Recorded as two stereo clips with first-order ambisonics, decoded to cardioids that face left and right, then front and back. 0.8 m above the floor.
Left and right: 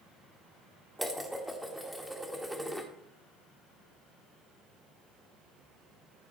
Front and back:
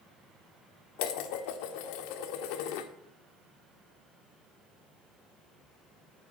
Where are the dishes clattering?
Straight ahead, 1.2 m.